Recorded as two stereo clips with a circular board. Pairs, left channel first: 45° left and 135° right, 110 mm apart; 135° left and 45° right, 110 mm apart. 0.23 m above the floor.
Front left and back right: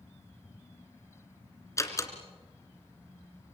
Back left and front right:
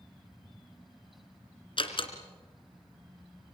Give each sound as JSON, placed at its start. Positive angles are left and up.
{"t": 1.8, "sound": "a door slam", "azimuth_deg": 105, "distance_m": 2.5}